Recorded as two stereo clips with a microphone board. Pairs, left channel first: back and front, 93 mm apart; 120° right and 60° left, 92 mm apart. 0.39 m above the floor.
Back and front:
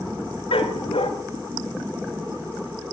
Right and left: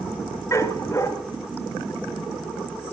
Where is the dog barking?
Straight behind, 1.8 m.